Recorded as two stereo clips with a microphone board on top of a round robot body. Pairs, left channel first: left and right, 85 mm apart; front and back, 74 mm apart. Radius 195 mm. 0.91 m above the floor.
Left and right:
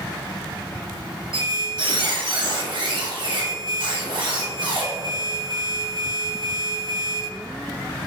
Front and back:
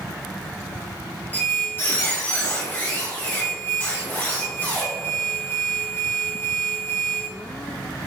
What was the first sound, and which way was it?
A squeak, 65° right.